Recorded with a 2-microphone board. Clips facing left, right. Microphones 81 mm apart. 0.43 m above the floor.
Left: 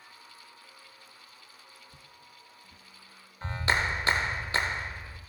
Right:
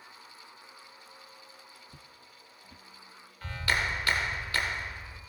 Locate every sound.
1.9 s footsteps: 40° right (ahead or behind), 0.5 m
3.4 s a clap: 25° left (ahead or behind), 0.9 m